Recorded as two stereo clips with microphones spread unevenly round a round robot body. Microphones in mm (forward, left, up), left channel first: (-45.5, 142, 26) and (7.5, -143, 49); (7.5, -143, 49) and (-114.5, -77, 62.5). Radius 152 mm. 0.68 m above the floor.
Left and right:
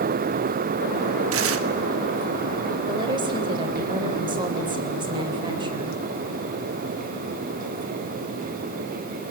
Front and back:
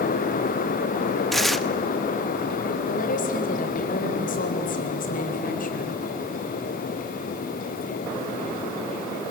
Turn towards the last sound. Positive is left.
turn(degrees=-5)